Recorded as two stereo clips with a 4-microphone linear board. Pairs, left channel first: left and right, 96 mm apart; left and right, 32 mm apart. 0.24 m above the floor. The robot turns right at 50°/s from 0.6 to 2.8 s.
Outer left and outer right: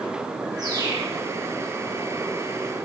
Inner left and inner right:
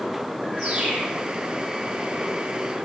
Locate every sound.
0.6 s a bird: 45° right (ahead or behind), 7 m; by 1.1 s 20° right (ahead or behind), 7 m